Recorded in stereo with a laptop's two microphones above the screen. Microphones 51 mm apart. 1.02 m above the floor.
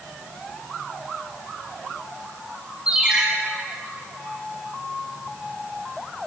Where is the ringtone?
20° right (ahead or behind), 3 m.